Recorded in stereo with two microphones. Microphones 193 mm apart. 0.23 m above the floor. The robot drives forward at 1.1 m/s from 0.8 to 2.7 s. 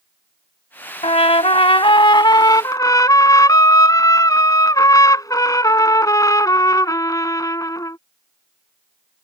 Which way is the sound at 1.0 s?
30° left (ahead or behind).